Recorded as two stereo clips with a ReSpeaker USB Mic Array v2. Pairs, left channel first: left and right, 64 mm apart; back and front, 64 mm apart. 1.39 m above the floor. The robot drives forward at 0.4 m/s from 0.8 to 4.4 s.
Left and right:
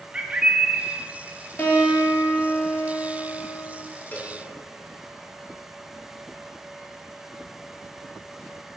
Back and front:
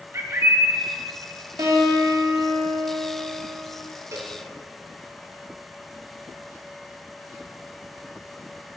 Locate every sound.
0.1 s a bird: 20° right, 1.0 m
1.6 s a guitar: 30° left, 2.5 m; by 3.8 s 45° left, 1.7 m
4.1 s a cowbell: 30° left, 1.9 m